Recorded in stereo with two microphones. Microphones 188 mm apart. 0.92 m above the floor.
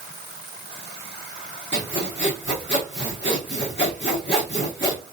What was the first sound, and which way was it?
Sawing, 70° left (ahead or behind).